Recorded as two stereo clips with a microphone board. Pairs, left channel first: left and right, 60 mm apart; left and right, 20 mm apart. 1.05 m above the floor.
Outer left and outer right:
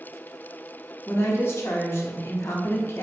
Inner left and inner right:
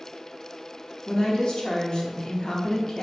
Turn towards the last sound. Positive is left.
turn(degrees=45)  # may be behind; listen again after turning